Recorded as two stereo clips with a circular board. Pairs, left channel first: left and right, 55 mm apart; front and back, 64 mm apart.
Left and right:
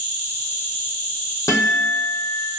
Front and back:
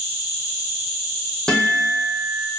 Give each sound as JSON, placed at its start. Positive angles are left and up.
{"t": 0.0, "sound": "an insect", "azimuth_deg": 140, "distance_m": 1.2}
{"t": 1.5, "sound": "a guitar", "azimuth_deg": 75, "distance_m": 0.9}